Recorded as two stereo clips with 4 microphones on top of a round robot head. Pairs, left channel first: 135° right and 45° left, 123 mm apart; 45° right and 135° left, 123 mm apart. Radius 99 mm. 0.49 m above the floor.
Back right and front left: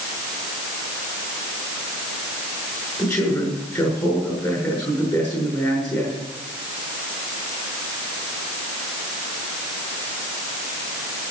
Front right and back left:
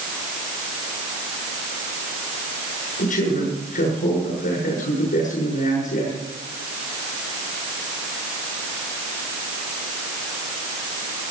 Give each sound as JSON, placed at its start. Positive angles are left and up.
{"t": 3.0, "sound": "a man speaking", "azimuth_deg": -55, "distance_m": 7.0}